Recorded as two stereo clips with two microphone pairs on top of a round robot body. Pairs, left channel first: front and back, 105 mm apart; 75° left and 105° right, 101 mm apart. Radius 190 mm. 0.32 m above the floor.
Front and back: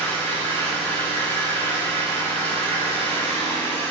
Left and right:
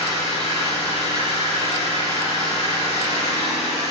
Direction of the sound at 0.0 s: 70° left.